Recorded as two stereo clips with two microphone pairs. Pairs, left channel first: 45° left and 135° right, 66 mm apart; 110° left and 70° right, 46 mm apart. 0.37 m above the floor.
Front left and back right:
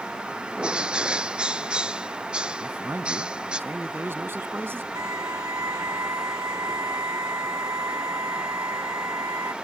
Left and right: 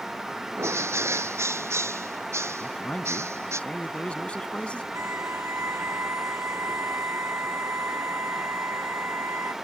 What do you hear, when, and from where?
0.6 s a bird: 60° right
2.6 s a man speaking: 170° left
4.9 s a violin: 100° right